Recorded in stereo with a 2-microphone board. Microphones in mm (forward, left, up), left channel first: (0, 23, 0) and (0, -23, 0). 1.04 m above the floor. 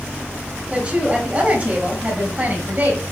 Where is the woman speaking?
25° right (ahead or behind), 6 m; by 3.0 s 40° right (ahead or behind), 6 m.